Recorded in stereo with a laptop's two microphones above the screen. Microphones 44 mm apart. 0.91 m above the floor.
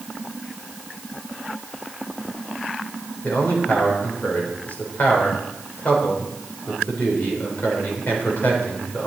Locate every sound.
3.2 s a man speaking: 45° left (ahead or behind), 3.5 m